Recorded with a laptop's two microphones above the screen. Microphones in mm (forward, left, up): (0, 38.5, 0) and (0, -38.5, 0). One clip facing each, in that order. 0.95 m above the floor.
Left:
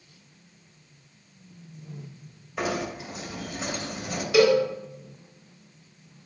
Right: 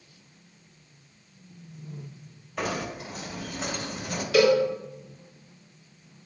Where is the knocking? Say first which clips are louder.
Left 2 dB; 10° left (ahead or behind), 3.5 m.